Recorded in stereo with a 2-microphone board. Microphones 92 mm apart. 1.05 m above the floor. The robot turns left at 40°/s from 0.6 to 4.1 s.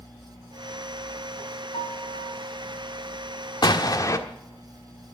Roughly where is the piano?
Left.